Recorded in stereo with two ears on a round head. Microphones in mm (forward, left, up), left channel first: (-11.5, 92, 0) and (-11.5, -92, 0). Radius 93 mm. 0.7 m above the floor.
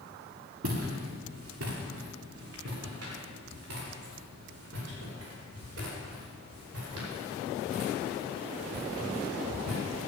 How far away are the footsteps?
About 4 m.